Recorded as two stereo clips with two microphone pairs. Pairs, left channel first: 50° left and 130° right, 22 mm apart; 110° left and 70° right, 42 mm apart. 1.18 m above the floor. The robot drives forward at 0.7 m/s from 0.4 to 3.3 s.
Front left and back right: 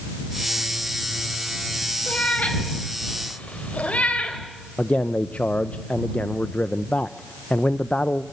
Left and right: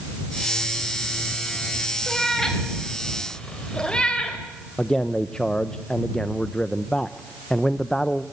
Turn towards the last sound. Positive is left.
turn(degrees=40)